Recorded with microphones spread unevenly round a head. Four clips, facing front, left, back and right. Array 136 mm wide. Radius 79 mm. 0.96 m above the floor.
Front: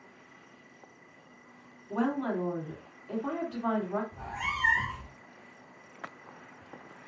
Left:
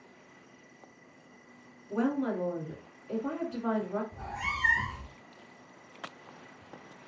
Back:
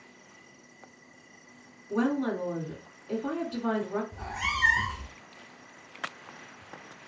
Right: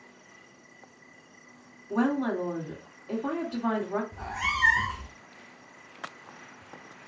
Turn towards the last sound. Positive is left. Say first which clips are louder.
# right 5 dB, back 2 dB
turn(degrees=175)